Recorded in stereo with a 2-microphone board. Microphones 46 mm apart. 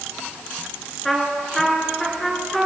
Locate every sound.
1.1 s a trumpet: 5° left (ahead or behind), 3 m